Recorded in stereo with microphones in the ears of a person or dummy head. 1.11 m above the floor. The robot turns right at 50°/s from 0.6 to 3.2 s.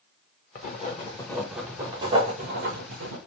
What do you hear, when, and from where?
0.6 s writing: 135° left, 1.7 m; by 3.2 s 95° right, 1.7 m